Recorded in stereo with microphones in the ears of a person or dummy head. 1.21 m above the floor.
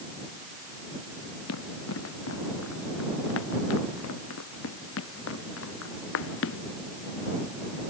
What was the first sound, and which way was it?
Running footsteps, 70° left (ahead or behind).